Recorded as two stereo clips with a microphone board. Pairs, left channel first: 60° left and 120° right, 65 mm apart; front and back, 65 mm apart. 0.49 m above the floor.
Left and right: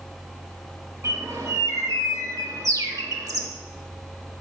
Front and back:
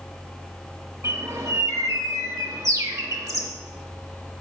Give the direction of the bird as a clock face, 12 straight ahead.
5 o'clock.